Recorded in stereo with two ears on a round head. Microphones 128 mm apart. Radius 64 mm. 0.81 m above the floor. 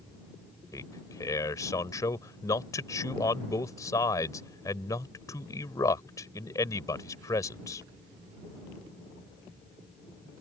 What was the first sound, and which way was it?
A man speaking, 25° left (ahead or behind).